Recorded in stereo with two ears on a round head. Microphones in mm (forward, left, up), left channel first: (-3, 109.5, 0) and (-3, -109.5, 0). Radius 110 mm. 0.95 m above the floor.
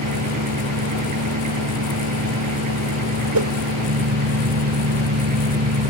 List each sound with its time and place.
0.0 s an engine running: 80° right
3.3 s a whoosh: 80° right